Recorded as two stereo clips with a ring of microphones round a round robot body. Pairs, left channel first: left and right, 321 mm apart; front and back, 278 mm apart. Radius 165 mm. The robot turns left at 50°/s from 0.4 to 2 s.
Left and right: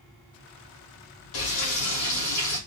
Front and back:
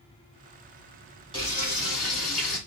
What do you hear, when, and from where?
1.3 s frying: 75° left, 2.5 m; by 2.6 s 40° left, 2.5 m